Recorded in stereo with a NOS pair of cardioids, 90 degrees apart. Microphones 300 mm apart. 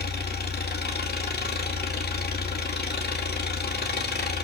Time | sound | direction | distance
0.0 | an engine running | 35° left | 2 m